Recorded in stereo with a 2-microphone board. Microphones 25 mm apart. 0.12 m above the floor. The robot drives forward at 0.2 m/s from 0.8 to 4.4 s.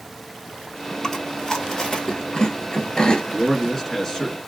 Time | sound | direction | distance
1.0 | chewing | 25° left (ahead or behind) | 1.2 m
3.3 | a man speaking | 10° left (ahead or behind) | 1.1 m